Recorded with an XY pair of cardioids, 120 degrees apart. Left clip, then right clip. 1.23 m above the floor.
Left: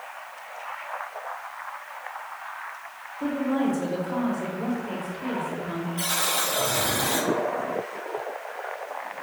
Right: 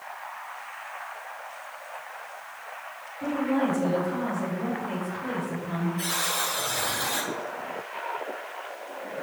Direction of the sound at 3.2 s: 25° left.